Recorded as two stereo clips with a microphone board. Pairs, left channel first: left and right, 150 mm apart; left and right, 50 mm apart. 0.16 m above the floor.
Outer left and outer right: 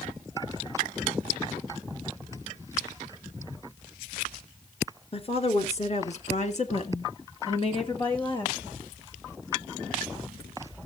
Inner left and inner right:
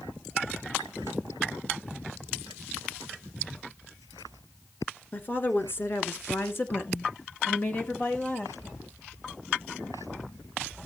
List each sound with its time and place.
5.1 s a woman speaking: 40° left (ahead or behind), 2 m; by 8.6 s 30° left (ahead or behind), 2.5 m